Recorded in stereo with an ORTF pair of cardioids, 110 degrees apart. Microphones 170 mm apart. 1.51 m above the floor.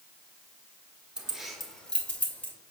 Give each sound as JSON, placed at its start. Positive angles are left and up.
{"t": 1.2, "sound": "keys jangling", "azimuth_deg": -5, "distance_m": 1.3}